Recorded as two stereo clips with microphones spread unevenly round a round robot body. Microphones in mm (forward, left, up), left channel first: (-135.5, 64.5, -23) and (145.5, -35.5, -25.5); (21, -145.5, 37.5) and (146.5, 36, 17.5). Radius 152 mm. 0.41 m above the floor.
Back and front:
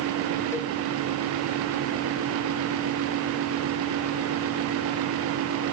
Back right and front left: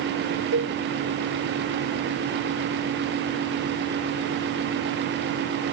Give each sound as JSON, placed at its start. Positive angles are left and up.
{"t": 0.5, "sound": "a cowbell", "azimuth_deg": 80}